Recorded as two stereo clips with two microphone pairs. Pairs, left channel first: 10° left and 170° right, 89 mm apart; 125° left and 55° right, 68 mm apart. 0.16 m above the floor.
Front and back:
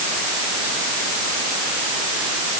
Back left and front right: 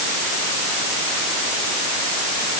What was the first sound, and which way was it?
Only background noise.